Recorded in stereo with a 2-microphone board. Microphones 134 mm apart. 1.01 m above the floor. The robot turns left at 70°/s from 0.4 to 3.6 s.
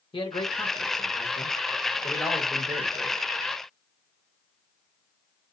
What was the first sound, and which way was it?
A man speaking, 135° left.